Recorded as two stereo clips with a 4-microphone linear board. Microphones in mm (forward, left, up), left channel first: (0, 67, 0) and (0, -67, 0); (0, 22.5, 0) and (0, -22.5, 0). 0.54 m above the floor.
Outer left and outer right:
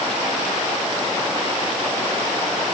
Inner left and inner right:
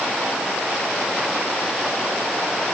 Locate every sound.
Only background noise.